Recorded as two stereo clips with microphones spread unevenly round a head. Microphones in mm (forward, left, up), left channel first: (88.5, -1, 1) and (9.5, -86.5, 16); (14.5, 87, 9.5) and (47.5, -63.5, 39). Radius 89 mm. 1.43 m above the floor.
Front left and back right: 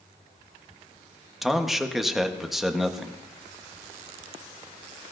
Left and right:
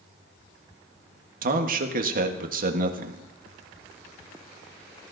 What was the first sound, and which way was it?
A man speaking, 45° right.